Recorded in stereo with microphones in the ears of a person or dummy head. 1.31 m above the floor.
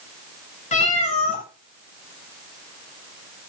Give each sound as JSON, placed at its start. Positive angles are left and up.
{"t": 0.7, "sound": "a cat meowing", "side_deg": 35, "distance_m": 2.0}